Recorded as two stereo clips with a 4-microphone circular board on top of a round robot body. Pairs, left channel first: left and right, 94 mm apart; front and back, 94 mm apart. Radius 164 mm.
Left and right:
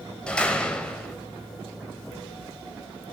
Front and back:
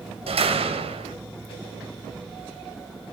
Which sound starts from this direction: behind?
A door slam, at 0.3 s.